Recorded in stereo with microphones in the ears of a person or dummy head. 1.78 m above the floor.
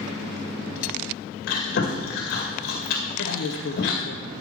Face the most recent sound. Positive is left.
turn(degrees=65)  # may be behind; listen again after turning